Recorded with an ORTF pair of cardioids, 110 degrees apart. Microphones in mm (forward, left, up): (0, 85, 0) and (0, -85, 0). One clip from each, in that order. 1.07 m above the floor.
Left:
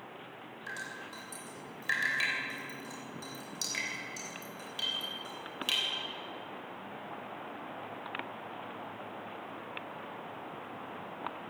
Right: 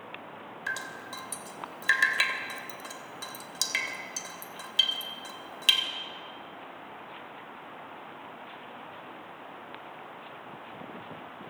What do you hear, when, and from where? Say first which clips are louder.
0.7 s dripping: right 6 dB; 60° right, 3 m